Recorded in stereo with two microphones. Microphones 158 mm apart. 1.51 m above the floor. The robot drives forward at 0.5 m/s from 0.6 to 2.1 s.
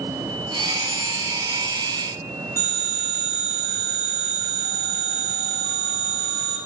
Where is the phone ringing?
70° left (ahead or behind), 8 m.